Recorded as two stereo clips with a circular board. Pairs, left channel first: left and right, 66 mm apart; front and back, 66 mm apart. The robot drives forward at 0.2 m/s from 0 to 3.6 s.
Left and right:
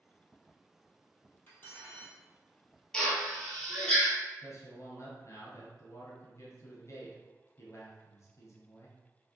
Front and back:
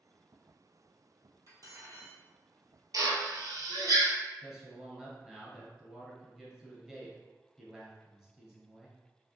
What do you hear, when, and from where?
1.5 s cutlery clinking: 145° left, 1.7 m; by 2.2 s 150° left, 1.9 m
2.9 s a drill: 165° left, 1.0 m; by 4.1 s 170° left, 1.1 m
4.4 s a man speaking: 100° left, 1.5 m